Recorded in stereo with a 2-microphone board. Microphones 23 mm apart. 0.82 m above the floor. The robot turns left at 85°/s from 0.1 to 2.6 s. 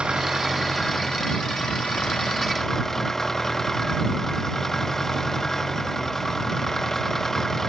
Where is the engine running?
125° right; by 7.7 s 25° left.